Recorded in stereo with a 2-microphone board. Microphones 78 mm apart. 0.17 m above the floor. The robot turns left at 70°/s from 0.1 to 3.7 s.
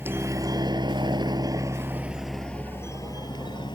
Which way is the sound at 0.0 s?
25° right (ahead or behind).